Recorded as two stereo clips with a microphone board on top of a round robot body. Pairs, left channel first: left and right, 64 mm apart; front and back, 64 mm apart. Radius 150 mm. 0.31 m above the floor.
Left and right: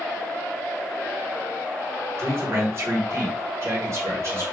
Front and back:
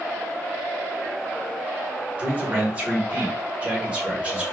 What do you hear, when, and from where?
2.2 s a man speaking: 115° right, 1.5 m